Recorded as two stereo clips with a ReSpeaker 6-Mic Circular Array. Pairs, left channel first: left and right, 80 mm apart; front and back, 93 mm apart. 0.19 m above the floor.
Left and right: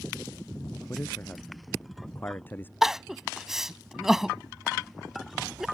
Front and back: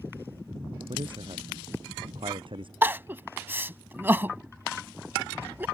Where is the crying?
165° right.